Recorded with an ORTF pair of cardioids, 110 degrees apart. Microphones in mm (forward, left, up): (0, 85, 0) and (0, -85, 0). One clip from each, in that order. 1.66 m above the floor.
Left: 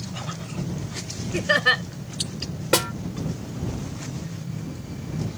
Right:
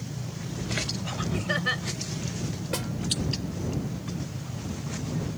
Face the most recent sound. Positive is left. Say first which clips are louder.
# left 12 dB
turn(degrees=70)